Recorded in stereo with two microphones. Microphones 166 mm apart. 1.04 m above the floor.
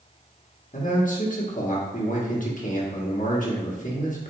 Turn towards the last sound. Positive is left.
turn(degrees=50)  # may be behind; listen again after turning